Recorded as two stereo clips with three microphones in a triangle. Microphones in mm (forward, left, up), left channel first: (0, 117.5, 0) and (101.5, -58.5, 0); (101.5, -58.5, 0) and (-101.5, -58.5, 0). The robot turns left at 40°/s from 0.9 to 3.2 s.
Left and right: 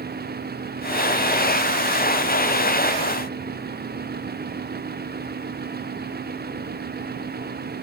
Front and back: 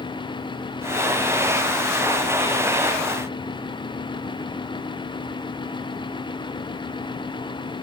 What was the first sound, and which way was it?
Only background noise.